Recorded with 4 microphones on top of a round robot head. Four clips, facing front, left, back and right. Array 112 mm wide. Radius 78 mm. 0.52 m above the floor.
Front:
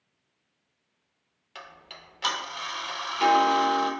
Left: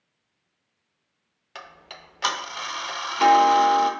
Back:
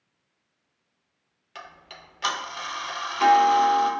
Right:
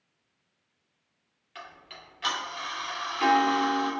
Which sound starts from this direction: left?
Ticking, at 1.6 s.